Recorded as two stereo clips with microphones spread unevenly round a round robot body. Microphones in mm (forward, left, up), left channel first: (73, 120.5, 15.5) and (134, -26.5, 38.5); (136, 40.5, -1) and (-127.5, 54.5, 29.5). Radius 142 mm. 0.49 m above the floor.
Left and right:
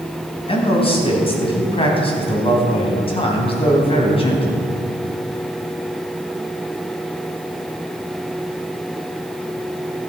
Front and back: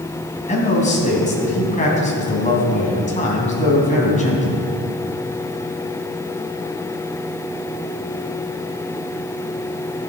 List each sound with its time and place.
0.5 s a man speaking: 60° left, 3.5 m